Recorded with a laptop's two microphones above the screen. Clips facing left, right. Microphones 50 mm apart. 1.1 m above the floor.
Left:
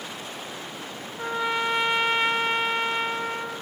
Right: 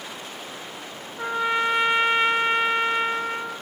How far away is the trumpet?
About 0.7 m.